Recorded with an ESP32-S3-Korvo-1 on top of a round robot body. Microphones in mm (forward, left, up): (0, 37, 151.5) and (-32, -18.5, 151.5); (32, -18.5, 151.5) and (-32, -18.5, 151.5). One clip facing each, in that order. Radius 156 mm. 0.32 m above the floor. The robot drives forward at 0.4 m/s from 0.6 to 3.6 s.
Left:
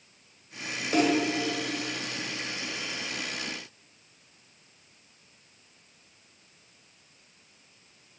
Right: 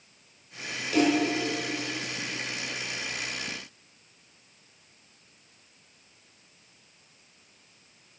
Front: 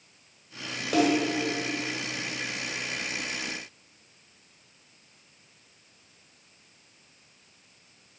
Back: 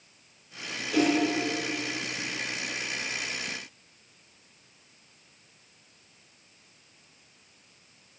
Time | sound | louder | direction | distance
0.9 | a snare drum | right 1 dB, front 1 dB | 10° left | 1.5 m